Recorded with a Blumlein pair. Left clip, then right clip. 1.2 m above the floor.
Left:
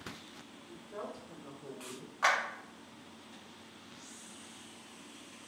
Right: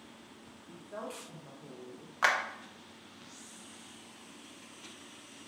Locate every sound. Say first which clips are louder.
0.7 s a woman speaking: right 1 dB; 30° right, 1.5 m; by 2.1 s 35° left, 0.8 m
2.2 s a clap: right 1 dB; 20° right, 0.8 m